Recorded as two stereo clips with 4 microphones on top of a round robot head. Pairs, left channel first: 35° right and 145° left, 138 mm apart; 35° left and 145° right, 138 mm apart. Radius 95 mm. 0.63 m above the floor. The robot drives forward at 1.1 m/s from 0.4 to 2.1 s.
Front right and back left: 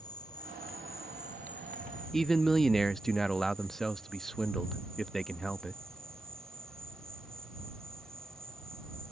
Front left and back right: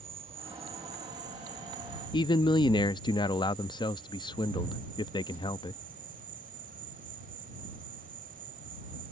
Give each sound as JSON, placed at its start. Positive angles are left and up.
{"t": 0.0, "sound": "an insect", "azimuth_deg": -95}
{"t": 2.1, "sound": "a man speaking", "azimuth_deg": 50}